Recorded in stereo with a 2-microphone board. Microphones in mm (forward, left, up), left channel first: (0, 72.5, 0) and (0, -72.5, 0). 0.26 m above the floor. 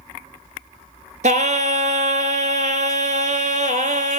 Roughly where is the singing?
Right.